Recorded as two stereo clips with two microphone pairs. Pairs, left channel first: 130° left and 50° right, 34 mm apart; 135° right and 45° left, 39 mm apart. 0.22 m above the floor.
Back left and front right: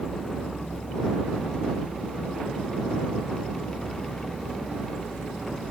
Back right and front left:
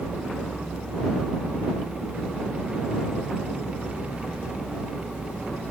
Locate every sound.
Only background noise.